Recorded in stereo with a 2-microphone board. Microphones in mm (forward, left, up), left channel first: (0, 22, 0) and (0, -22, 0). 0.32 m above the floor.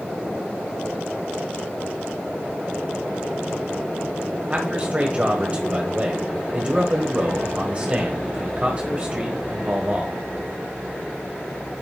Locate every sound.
4.5 s a man speaking: 30° right (ahead or behind), 1.5 m